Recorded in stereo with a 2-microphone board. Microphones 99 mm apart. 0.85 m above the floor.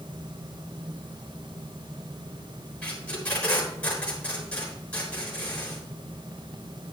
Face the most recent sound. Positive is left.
turn(degrees=15)  # may be behind; listen again after turning